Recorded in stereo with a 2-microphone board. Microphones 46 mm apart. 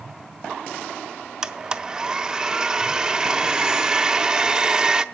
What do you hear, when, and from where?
1.4 s a blender: 15° right (ahead or behind), 0.6 m